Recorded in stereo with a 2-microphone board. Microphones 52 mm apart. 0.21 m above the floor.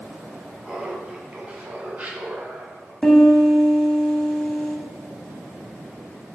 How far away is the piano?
About 1.4 m.